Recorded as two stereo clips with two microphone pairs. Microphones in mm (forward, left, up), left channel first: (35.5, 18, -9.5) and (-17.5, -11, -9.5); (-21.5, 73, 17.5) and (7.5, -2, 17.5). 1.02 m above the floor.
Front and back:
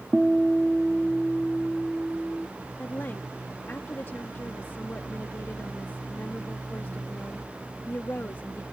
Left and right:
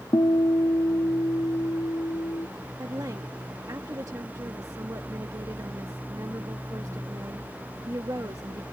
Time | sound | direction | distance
0.1 | a guitar | 125° left | ?
2.8 | a woman speaking | 25° right | ?